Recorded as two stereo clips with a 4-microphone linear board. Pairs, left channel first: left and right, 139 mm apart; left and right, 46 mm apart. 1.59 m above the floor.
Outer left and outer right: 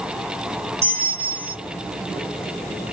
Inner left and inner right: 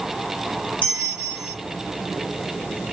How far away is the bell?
About 0.8 m.